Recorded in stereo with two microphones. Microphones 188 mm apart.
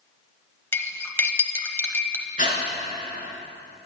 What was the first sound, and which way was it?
Cutlery clinking, 10° left (ahead or behind).